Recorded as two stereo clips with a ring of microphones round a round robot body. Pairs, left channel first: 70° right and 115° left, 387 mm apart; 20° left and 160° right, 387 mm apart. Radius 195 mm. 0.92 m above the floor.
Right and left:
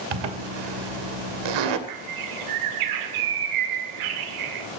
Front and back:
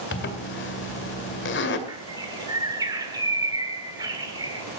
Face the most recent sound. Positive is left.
turn(degrees=120)